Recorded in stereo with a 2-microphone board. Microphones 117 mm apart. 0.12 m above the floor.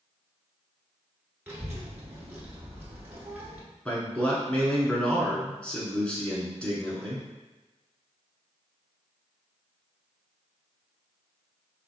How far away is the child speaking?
About 1.0 m.